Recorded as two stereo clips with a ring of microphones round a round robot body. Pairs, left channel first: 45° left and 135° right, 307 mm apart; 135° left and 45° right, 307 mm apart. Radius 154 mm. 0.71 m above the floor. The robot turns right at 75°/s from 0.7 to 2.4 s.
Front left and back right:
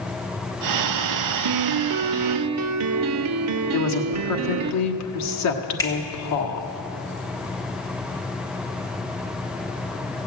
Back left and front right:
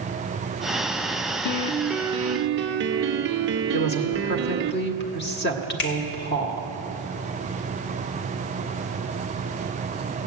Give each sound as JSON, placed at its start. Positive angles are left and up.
{"t": 1.4, "sound": "a piano", "azimuth_deg": -170, "distance_m": 0.5}
{"t": 3.7, "sound": "a woman speaking", "azimuth_deg": 80, "distance_m": 1.5}
{"t": 5.8, "sound": "a finger snap", "azimuth_deg": 125, "distance_m": 1.5}